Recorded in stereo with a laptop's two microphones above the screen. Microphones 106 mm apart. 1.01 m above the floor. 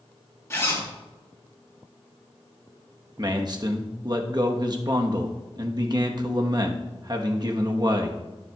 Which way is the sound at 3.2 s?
40° right (ahead or behind).